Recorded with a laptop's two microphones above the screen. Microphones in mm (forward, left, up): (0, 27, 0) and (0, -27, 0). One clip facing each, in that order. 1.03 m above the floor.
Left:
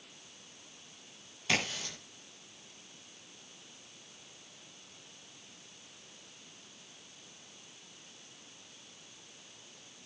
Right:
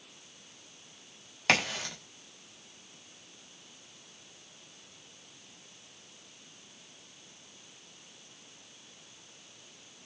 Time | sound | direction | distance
1.5 | a crack | 80° right | 7 m